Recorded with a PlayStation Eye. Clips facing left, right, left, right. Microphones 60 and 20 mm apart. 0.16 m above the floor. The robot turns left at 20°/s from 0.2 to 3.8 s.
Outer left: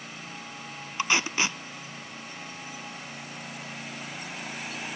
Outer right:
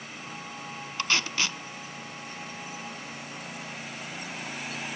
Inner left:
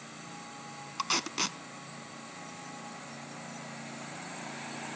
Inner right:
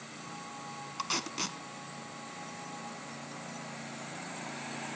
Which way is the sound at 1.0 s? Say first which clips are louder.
Outer left 2 dB, inner left 4 dB; 15° left (ahead or behind).